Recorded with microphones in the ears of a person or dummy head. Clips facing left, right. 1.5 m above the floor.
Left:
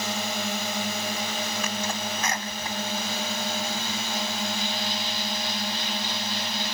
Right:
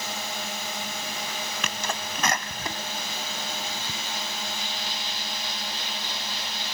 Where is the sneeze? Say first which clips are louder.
Left 3 dB; 55° right (ahead or behind).